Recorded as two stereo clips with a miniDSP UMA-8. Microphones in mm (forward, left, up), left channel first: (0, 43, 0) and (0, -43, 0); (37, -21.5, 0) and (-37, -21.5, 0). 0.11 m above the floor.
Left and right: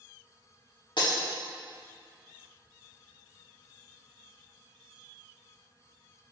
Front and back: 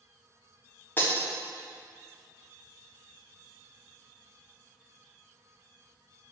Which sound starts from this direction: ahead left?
Breaking glass, at 1.0 s.